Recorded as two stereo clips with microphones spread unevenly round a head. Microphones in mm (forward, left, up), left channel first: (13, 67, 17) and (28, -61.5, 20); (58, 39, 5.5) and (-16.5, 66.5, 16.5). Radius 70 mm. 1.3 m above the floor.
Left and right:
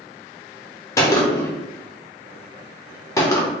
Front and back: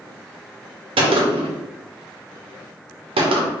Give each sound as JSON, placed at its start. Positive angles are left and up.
{"t": 1.0, "sound": "a gunshot", "azimuth_deg": 165, "distance_m": 0.7}